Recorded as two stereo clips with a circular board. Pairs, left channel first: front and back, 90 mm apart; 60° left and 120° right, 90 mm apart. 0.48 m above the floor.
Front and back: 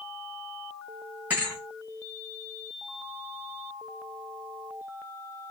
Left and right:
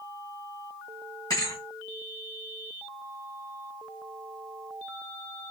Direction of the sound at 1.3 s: 105° left.